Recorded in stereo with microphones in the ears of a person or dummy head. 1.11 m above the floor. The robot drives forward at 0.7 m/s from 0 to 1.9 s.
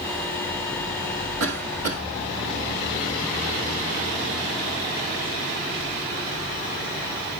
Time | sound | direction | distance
1.4 | a cough | 85° right | 1.9 m